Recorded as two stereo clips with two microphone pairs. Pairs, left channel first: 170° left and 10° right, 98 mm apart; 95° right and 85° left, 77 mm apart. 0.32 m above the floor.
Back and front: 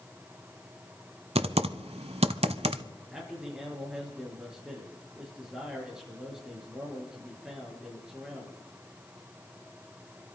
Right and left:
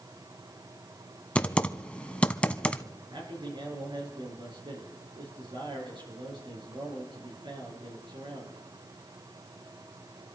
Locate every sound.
1.4 s typing on a keyboard: 15° right, 0.7 m
3.1 s a man speaking: 75° left, 6 m